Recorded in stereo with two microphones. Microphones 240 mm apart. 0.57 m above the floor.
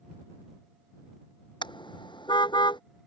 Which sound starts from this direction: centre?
A car horn, at 1.6 s.